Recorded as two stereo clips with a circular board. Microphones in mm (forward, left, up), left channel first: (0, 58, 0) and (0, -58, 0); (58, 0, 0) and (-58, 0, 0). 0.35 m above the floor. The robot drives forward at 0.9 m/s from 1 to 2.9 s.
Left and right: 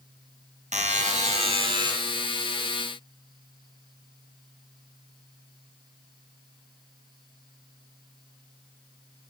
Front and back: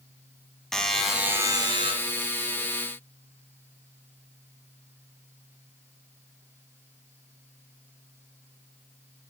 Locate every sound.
0.7 s a buzzer: 85° right, 0.7 m; by 1.9 s 140° right, 1.1 m